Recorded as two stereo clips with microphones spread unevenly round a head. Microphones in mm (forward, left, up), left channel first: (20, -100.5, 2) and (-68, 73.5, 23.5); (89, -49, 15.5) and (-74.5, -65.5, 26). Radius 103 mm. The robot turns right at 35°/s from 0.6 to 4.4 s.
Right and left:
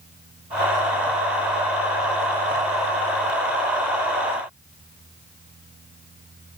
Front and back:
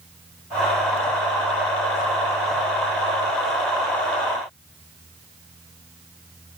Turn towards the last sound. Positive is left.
No sound to turn to.